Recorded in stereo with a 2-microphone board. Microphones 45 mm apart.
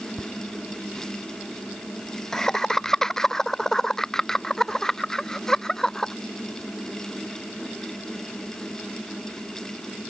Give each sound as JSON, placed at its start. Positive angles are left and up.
{"t": 0.2, "sound": "laughter", "side_deg": 10}